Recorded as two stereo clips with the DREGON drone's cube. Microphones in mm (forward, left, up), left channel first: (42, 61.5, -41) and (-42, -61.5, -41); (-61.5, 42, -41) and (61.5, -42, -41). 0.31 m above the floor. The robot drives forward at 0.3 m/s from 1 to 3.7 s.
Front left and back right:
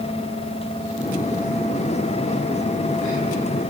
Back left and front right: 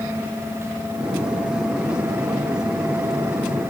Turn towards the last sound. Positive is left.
No sound to turn to.